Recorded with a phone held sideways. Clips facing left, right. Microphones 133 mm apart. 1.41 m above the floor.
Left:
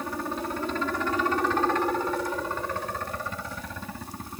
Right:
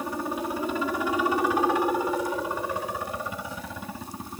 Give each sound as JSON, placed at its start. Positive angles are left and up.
{"t": 0.0, "sound": "a helicopter", "side_deg": -10}